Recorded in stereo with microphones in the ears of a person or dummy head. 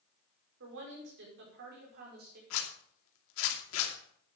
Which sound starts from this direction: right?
A woman speaking, at 0.6 s.